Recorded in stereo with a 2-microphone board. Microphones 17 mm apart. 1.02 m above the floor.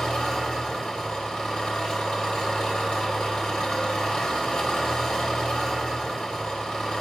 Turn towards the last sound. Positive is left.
turn(degrees=70)  # may be behind; listen again after turning